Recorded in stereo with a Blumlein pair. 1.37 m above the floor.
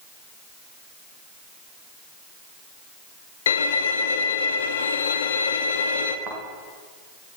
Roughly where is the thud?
Ahead right.